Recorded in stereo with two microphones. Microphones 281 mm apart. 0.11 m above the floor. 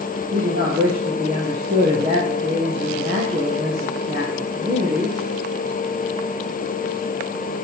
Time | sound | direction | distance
0.3 | a man speaking | 30° right (ahead or behind) | 3 m